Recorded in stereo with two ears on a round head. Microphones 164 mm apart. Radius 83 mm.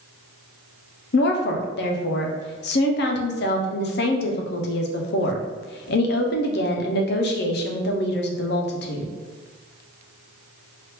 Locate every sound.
1.1 s a woman speaking: 60° left (ahead or behind), 0.5 m